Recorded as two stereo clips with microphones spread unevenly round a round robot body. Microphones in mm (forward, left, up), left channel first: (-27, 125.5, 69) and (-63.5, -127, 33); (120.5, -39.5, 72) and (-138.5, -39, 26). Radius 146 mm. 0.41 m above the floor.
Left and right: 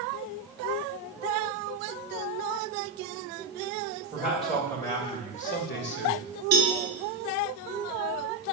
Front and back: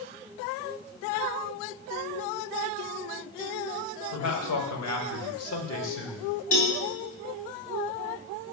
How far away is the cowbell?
About 4 m.